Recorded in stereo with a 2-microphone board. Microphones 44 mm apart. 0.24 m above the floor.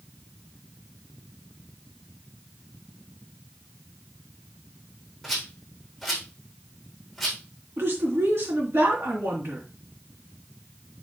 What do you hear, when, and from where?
5.2 s a rattle: 5° right (ahead or behind), 3.5 m
7.8 s a woman speaking: 65° right (ahead or behind), 3.5 m